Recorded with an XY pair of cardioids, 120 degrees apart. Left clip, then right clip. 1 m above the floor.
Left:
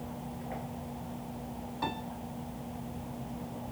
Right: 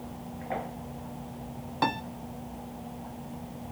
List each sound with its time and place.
1.8 s a piano: 65° right, 0.5 m